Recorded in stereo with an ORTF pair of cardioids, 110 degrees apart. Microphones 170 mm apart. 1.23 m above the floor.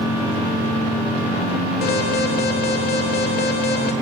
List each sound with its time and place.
1.8 s an alarm: 70° left, 3 m